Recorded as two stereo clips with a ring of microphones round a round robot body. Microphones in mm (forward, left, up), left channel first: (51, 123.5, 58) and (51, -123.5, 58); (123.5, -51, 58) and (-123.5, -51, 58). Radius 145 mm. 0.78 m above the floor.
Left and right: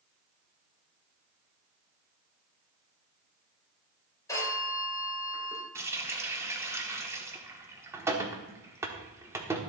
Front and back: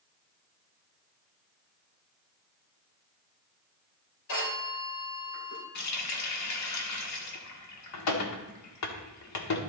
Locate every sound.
4.3 s a phone ringing: 10° left, 3 m
5.8 s a running tap: 10° right, 1.4 m